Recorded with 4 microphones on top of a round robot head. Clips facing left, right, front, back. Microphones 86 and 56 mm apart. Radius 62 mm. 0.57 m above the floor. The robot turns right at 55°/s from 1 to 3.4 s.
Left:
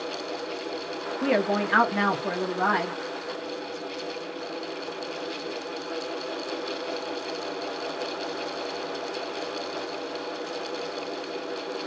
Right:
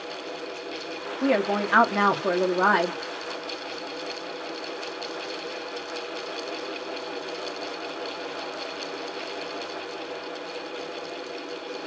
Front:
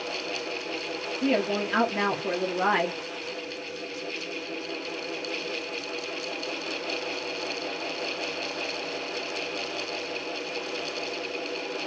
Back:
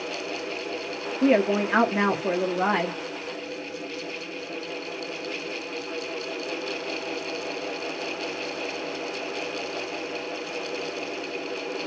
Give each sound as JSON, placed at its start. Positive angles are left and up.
{"t": 1.2, "sound": "a woman speaking", "azimuth_deg": -175, "distance_m": 1.1}